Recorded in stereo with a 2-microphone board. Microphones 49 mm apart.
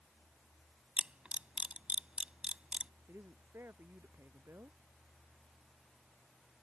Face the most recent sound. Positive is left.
turn(degrees=-55)  # may be behind; listen again after turning